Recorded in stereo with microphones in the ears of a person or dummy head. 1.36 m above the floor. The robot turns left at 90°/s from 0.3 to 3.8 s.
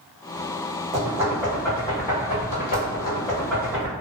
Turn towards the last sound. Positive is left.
turn(degrees=-25)  # may be behind; listen again after turning